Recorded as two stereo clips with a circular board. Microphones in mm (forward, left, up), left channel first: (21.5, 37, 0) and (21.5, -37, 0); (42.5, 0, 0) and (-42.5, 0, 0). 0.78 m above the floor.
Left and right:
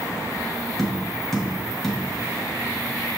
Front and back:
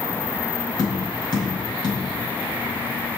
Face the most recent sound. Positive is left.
turn(degrees=5)